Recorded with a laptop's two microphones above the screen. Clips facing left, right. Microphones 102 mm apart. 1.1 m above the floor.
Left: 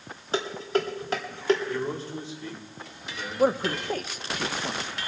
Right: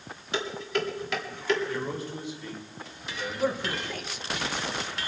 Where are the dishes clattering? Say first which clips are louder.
Left 3 dB; 35° left (ahead or behind), 1.4 m.